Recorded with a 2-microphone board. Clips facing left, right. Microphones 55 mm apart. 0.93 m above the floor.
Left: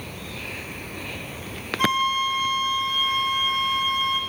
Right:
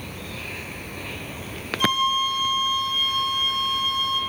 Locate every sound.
1.8 s a flute: 45° left (ahead or behind), 0.5 m